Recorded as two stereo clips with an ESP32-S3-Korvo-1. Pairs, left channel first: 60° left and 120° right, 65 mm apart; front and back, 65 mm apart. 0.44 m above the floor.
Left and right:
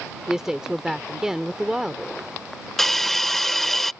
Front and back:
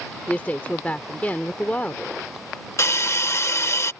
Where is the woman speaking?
45° right.